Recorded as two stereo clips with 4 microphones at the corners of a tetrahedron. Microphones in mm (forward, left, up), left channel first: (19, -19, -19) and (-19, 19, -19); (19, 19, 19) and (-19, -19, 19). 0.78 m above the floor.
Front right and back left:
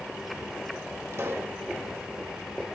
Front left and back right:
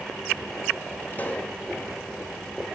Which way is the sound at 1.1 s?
100° left.